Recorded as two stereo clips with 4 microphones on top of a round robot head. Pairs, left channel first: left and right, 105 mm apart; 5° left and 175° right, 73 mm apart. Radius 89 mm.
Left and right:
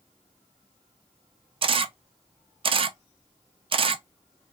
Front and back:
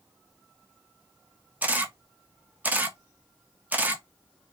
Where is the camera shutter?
110° right, 0.6 m.